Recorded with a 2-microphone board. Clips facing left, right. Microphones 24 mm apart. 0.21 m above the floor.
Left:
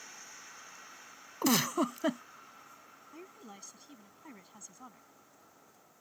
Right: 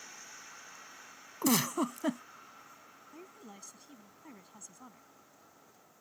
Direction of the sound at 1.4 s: 20° left (ahead or behind).